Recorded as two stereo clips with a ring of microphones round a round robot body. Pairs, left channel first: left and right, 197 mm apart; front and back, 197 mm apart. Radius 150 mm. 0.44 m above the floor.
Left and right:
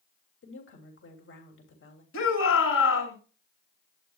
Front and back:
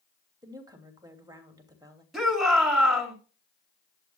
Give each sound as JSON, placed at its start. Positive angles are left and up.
{"t": 0.4, "sound": "a woman speaking", "azimuth_deg": 110, "distance_m": 3.0}
{"t": 2.1, "sound": "a shout", "azimuth_deg": 90, "distance_m": 6.5}